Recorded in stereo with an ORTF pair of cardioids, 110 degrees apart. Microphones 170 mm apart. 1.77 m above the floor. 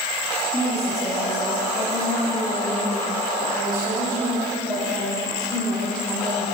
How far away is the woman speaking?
About 4.5 m.